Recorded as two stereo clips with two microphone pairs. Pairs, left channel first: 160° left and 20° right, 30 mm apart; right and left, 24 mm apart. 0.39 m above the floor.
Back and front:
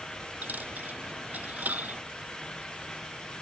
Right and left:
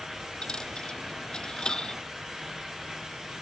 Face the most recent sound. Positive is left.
turn(degrees=-40)